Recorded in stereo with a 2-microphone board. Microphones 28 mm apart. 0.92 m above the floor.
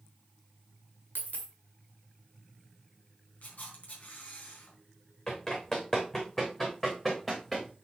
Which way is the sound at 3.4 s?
65° left (ahead or behind).